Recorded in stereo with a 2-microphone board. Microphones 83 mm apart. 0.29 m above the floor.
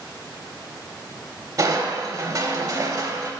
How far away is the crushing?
About 0.7 m.